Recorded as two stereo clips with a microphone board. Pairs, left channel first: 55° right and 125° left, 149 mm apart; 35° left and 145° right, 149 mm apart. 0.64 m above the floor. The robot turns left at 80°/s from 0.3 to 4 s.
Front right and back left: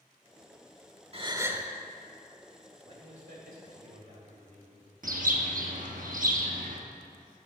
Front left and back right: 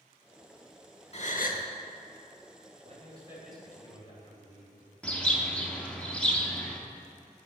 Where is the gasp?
80° left, 0.7 m; by 1.7 s 35° left, 0.7 m.